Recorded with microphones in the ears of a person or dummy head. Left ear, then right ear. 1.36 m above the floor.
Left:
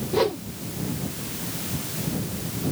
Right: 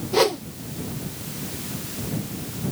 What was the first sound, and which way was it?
A whoosh, 30° right (ahead or behind).